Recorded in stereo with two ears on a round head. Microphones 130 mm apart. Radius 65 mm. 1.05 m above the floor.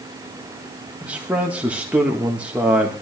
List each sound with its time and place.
1.0 s a man speaking: 10° right (ahead or behind), 1.6 m